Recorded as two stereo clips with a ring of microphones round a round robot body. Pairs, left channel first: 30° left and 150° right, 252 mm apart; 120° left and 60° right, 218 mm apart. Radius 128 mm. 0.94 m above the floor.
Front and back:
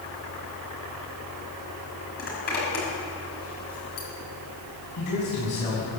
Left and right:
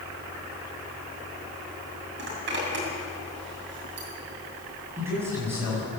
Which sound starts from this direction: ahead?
A man speaking, at 5.0 s.